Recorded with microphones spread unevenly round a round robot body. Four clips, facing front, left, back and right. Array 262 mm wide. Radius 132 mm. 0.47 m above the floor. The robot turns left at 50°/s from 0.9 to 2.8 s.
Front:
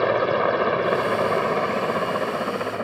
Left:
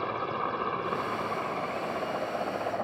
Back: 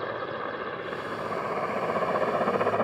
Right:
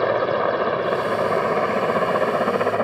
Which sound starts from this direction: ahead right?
A helicopter, at 0.0 s.